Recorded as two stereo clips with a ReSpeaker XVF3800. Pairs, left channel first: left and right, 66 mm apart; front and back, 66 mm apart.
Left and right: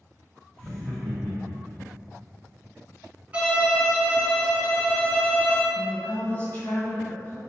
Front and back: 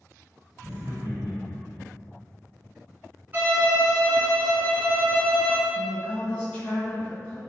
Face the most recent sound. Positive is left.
turn(degrees=45)